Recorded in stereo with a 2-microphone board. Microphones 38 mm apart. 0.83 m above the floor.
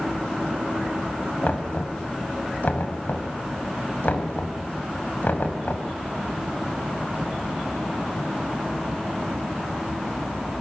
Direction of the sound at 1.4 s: 60° left (ahead or behind).